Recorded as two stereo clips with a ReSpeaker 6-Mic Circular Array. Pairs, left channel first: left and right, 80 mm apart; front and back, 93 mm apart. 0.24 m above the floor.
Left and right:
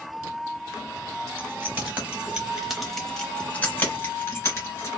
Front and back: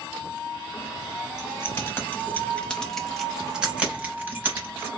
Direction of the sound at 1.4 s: 45° right.